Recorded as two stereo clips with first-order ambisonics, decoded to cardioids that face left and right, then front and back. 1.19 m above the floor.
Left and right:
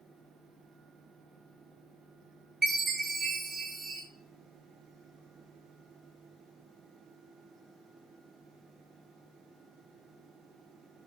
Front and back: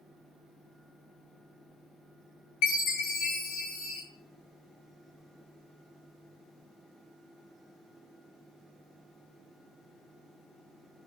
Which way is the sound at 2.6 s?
20° right.